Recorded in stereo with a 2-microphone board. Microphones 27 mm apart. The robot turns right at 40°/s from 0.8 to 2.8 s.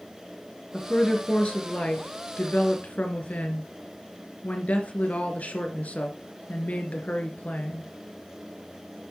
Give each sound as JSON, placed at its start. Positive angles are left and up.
{"t": 0.7, "sound": "a woman speaking", "azimuth_deg": 25, "distance_m": 3.0}